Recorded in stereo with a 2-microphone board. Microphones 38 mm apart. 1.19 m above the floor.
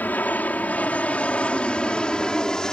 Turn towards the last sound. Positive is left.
turn(degrees=20)  # may be behind; listen again after turning